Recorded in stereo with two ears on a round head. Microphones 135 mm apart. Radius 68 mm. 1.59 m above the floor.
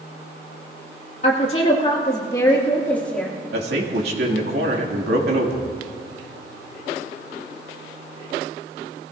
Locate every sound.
1.2 s a woman speaking: 45° left (ahead or behind), 2.0 m; by 3.4 s 5° left (ahead or behind), 2.5 m
3.5 s a man speaking: 80° right, 2.5 m